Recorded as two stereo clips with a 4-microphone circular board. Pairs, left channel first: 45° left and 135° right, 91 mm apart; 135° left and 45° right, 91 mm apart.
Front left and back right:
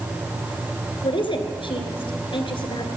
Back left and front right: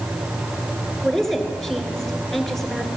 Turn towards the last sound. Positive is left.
turn(degrees=45)